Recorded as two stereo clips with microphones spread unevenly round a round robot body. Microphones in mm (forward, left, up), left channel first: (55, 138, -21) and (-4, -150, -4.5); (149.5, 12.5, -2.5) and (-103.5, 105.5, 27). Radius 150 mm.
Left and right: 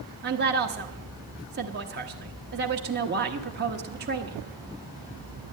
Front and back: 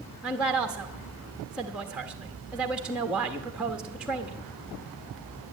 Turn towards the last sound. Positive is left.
turn(degrees=-105)